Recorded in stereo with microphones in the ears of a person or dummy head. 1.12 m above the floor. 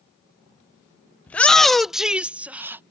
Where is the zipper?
No zipper in this recording.